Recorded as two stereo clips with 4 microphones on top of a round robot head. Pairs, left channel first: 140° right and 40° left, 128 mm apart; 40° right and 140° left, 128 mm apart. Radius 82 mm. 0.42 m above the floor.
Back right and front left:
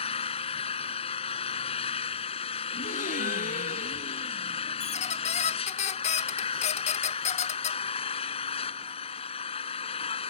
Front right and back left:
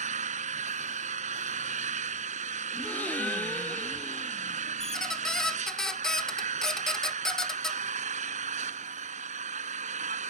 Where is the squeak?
125° right.